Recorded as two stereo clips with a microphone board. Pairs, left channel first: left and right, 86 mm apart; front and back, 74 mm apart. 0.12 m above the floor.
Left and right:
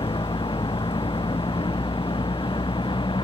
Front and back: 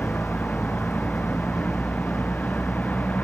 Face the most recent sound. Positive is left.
turn(degrees=70)